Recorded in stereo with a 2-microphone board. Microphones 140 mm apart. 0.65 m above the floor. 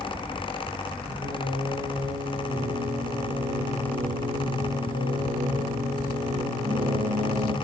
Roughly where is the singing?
Right.